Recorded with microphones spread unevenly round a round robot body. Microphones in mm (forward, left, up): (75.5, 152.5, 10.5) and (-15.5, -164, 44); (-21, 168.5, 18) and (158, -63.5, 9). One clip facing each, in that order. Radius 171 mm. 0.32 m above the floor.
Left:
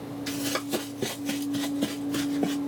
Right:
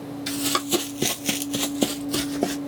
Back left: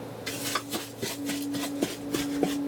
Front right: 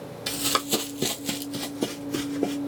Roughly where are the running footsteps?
Ahead right.